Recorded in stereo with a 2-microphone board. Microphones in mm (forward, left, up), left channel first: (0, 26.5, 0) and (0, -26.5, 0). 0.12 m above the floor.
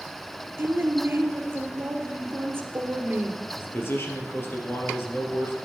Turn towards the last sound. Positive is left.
turn(degrees=50)  # may be behind; listen again after turning